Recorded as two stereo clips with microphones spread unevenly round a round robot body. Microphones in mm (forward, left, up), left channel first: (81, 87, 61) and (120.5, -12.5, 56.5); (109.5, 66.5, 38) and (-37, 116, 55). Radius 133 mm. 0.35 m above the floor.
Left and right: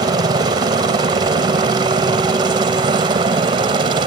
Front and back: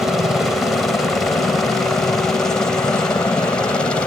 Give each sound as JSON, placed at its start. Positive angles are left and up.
{"t": 0.0, "sound": "a helicopter", "azimuth_deg": -105}